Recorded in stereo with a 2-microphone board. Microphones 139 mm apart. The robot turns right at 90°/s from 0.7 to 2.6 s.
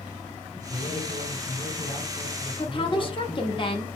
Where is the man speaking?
30° left, 2.5 m; by 3.6 s 160° right, 2.5 m.